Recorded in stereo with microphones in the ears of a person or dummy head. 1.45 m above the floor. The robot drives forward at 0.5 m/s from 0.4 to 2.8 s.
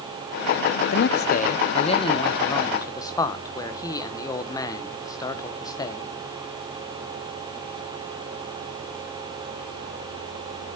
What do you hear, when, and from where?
0.9 s a man speaking: 60° left (ahead or behind), 0.6 m; by 6.1 s 20° left (ahead or behind), 1.3 m